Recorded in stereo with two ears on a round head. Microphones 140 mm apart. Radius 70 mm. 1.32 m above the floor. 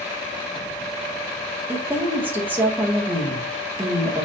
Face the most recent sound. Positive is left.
turn(degrees=-15)  # may be behind; listen again after turning